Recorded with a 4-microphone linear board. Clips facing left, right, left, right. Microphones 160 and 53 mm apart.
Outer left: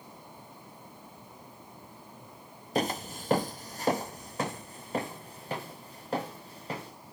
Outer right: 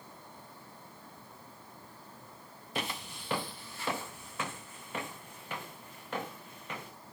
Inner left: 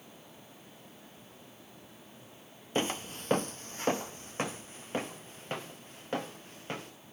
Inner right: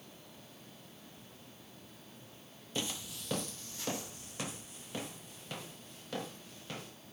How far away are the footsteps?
About 0.5 m.